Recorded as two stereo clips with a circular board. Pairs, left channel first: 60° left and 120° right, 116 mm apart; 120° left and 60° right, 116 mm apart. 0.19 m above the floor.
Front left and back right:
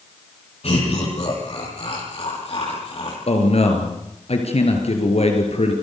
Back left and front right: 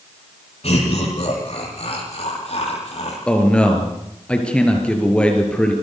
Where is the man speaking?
40° left, 4.5 m.